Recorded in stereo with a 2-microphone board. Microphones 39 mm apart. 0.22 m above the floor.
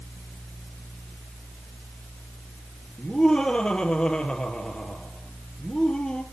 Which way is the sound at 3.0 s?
25° left (ahead or behind).